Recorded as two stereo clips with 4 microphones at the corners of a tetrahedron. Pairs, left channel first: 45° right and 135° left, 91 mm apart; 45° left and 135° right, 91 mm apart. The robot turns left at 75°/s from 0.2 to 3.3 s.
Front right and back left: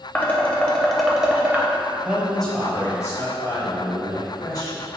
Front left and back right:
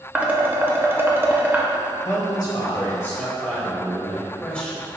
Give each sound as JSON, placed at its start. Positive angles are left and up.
{"t": 0.1, "sound": "dishes clattering", "azimuth_deg": -80, "distance_m": 0.5}
{"t": 2.0, "sound": "a man speaking", "azimuth_deg": 65, "distance_m": 1.1}